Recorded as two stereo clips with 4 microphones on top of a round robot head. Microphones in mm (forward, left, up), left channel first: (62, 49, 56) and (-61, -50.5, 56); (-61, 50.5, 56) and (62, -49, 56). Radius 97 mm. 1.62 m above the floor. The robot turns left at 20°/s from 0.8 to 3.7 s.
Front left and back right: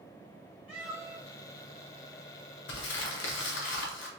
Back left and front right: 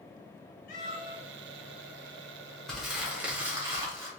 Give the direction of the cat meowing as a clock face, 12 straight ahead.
7 o'clock.